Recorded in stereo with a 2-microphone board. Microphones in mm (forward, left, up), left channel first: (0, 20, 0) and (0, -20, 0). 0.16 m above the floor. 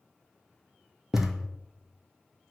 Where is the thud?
10° right (ahead or behind), 0.9 m.